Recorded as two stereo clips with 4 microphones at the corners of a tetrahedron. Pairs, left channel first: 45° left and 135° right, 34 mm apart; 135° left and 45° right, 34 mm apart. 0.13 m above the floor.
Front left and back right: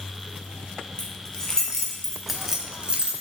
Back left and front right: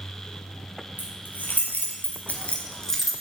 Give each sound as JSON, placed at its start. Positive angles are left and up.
{"t": 1.0, "sound": "keys jangling", "azimuth_deg": 110, "distance_m": 2.5}